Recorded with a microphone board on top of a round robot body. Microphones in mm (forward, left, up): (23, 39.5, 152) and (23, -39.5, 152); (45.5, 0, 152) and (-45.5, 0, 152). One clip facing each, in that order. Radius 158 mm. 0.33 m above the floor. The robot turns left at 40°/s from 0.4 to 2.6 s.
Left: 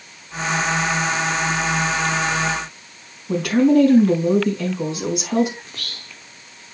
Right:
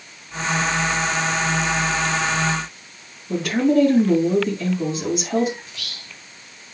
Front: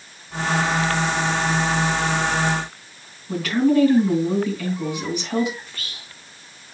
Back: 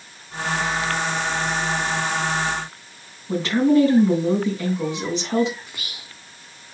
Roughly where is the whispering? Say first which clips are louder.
Left 1 dB, even; left.